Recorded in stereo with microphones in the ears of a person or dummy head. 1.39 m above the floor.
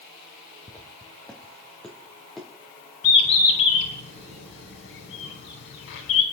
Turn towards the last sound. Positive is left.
turn(degrees=75)  # may be behind; listen again after turning